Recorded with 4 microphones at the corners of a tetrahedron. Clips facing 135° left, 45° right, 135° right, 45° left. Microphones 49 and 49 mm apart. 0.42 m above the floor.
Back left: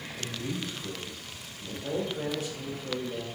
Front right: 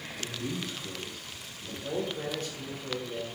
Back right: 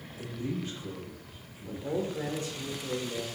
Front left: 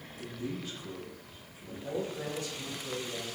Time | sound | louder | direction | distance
0.2 | a man speaking | even, back right 3 dB | 170° right | 1.6 m
1.6 | a man speaking | back left 1 dB, back right 3 dB | 150° right | 0.9 m